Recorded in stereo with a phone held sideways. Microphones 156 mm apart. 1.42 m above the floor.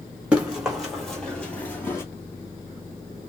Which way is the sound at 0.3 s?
10° right (ahead or behind).